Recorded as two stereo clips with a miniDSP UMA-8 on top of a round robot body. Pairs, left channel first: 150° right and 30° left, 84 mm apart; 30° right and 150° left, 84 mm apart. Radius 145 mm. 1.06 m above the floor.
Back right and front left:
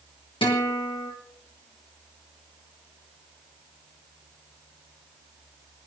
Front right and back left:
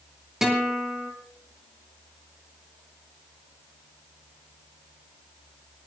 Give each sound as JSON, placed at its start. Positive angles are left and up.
{"t": 0.4, "sound": "a guitar", "azimuth_deg": -125, "distance_m": 3.0}